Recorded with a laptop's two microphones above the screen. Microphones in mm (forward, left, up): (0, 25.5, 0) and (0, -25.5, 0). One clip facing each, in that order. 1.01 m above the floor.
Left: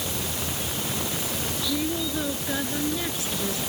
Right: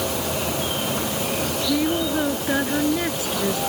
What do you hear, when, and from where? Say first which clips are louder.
0.0 s an insect: right 7 dB; 70° right (ahead or behind)
1.7 s a woman speaking: right 6 dB; 35° right (ahead or behind)